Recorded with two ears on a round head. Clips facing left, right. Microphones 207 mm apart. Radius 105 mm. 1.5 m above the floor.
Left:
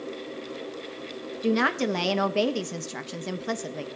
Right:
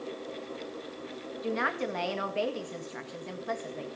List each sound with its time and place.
1.4 s a woman speaking: 60° left (ahead or behind), 1.8 m